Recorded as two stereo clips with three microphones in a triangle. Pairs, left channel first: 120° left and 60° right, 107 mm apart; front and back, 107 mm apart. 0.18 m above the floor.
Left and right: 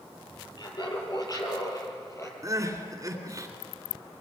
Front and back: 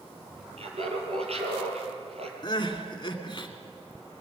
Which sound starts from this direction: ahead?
Crying, at 2.4 s.